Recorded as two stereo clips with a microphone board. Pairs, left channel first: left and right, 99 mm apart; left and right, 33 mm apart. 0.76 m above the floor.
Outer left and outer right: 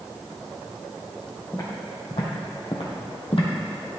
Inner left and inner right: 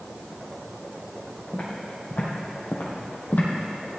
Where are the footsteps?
45° left (ahead or behind), 2.5 m; by 3.5 s 65° left (ahead or behind), 1.9 m.